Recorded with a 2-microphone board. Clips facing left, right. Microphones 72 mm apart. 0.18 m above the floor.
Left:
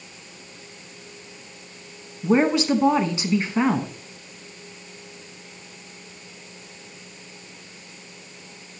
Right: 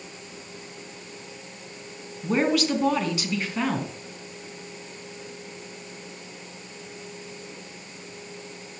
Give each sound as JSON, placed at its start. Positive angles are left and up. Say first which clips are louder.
{"t": 2.2, "sound": "a woman speaking", "louder": "left 4 dB", "side_deg": 25, "distance_m": 1.5}